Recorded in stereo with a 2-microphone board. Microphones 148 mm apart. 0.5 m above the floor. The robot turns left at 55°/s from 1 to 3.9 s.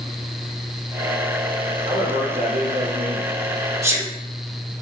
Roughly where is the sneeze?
Centre.